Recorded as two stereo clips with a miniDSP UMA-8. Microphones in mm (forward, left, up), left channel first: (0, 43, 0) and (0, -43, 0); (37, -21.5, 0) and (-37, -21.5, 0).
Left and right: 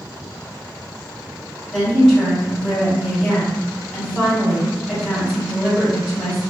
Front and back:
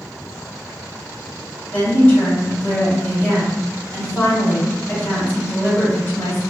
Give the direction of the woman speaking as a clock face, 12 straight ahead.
11 o'clock.